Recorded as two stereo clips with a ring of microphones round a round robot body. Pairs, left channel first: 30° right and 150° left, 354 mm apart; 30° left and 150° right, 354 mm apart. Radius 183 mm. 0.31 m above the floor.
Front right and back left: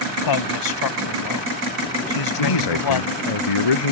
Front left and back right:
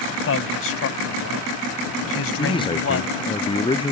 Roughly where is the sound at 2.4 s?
Ahead right.